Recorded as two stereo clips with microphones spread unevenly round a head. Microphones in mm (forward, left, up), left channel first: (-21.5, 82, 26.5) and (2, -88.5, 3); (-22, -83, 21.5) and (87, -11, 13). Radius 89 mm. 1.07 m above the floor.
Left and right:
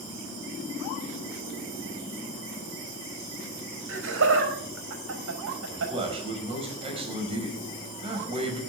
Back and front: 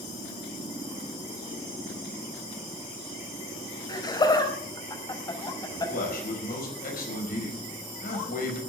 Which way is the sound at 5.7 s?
145° right.